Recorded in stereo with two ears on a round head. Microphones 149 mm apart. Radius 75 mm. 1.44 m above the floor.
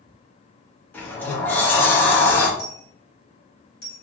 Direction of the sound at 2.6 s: 25° left (ahead or behind).